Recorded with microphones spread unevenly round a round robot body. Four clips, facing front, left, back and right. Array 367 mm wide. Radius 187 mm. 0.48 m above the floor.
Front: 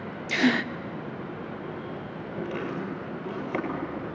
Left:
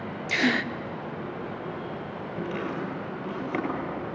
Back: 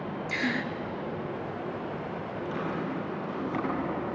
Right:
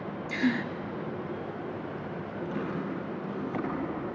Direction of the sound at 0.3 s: 55° left.